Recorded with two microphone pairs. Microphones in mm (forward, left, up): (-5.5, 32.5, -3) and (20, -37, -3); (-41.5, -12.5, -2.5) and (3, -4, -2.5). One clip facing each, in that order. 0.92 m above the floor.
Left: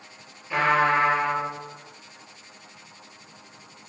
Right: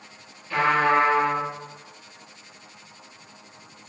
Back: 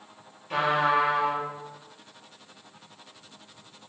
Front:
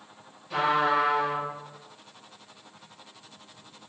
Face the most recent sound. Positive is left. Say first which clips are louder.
# right 1 dB, even
turn(degrees=180)